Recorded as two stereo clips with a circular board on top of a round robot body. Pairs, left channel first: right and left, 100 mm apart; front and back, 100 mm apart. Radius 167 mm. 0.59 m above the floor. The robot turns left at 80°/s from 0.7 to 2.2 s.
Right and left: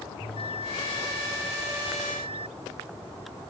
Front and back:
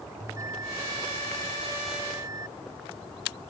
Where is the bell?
120° right; by 2.5 s 120° left.